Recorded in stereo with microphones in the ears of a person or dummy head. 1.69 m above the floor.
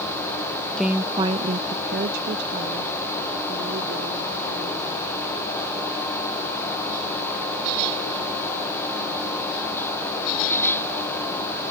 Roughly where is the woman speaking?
Centre.